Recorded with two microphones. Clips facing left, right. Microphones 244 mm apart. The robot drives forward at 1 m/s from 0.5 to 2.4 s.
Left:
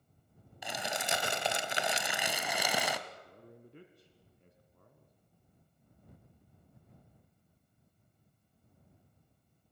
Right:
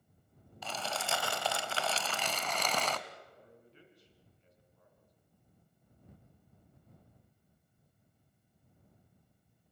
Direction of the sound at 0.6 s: 15° left (ahead or behind).